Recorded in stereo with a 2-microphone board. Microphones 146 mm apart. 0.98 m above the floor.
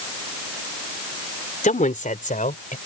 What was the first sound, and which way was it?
A woman speaking, 65° left (ahead or behind).